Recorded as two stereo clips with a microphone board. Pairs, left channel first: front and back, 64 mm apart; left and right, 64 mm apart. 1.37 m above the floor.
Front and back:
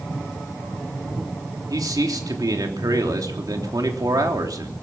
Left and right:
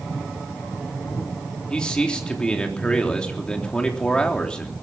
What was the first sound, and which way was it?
A man speaking, 165° left.